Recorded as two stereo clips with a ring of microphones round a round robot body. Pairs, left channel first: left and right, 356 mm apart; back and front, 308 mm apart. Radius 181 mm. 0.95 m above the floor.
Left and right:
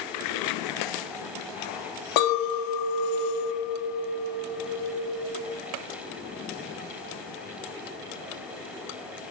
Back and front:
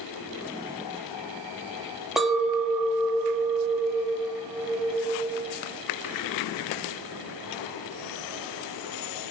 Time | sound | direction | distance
2.2 | a clink | 90° left | 0.5 m